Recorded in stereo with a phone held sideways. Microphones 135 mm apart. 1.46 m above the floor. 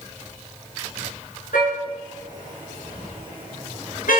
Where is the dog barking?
I don't hear a dog barking.